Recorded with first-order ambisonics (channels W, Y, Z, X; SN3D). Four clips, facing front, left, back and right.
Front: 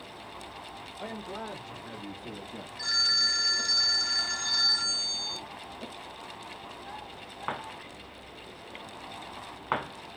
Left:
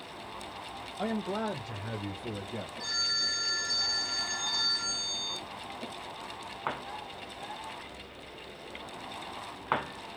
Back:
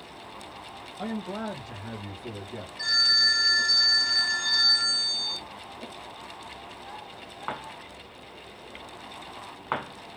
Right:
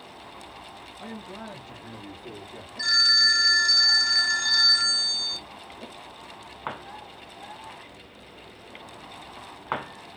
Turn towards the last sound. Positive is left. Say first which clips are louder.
# right 12 dB, back 4 dB
turn(degrees=-95)